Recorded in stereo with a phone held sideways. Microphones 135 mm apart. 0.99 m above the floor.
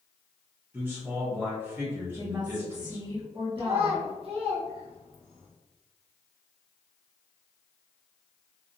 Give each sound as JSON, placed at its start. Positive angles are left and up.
{"t": 0.7, "sound": "a man speaking", "side_deg": -15, "distance_m": 1.1}
{"t": 2.2, "sound": "a woman speaking", "side_deg": -35, "distance_m": 0.9}
{"t": 3.6, "sound": "a child speaking", "side_deg": -45, "distance_m": 1.0}